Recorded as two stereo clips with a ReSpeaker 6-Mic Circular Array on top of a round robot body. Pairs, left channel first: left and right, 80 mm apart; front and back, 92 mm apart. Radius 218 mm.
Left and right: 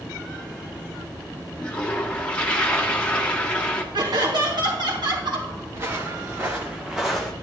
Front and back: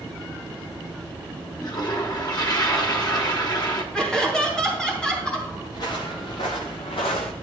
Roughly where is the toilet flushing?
Ahead.